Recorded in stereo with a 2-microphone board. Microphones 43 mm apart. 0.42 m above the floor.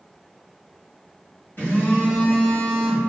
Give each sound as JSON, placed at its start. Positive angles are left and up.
{"t": 1.6, "sound": "a phone buzzing", "side_deg": 55, "distance_m": 1.4}